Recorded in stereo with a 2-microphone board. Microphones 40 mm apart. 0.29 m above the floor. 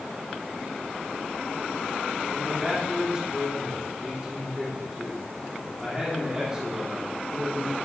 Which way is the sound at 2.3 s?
10° right (ahead or behind).